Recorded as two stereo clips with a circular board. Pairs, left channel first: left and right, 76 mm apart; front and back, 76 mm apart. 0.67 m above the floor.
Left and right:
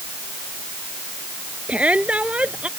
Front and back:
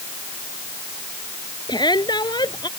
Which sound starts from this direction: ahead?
A shout, at 1.7 s.